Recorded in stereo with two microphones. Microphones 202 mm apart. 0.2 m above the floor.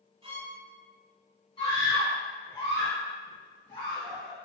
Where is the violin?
30° right (ahead or behind), 1.2 m.